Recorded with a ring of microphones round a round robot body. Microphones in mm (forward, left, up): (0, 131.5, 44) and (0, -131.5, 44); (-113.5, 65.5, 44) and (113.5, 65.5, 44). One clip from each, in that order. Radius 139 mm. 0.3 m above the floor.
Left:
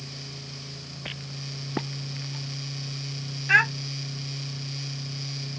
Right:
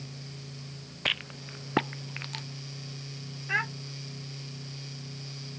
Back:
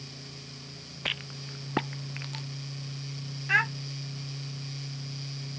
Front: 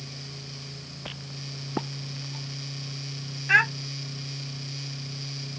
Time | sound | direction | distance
1.1 | a rattle | 135° right | ?
3.5 | a child speaking | 60° left | ?